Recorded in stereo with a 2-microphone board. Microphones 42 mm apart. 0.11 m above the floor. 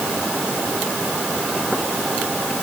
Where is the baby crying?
I don't hear a baby crying.